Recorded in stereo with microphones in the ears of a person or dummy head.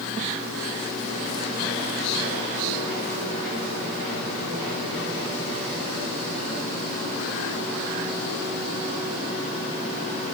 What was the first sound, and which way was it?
Only background noise.